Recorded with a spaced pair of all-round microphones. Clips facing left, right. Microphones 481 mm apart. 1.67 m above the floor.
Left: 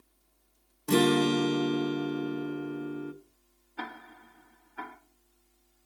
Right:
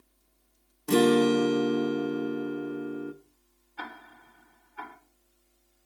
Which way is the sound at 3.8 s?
65° left (ahead or behind).